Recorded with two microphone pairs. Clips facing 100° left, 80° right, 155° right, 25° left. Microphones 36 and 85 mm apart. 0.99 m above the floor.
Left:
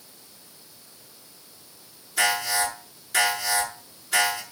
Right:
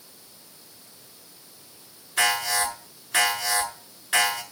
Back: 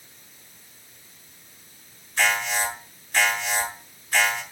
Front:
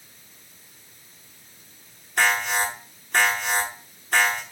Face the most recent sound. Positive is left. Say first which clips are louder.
# even, front 2 dB
turn(degrees=-15)